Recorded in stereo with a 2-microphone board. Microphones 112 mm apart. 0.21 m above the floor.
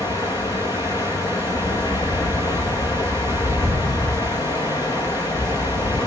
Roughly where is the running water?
Left.